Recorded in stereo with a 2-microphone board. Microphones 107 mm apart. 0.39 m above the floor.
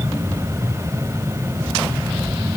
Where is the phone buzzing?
No phone buzzing in this recording.